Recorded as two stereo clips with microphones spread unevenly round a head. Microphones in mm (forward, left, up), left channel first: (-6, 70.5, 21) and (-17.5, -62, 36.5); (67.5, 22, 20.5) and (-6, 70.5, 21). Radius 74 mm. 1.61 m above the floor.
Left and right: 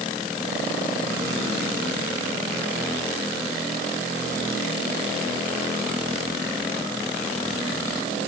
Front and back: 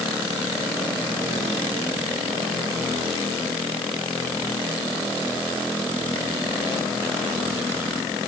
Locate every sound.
Only background noise.